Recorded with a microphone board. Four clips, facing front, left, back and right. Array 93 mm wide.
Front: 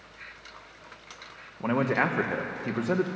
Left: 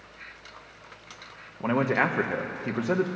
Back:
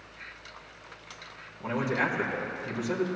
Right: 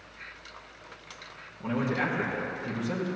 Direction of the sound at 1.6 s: 50° left.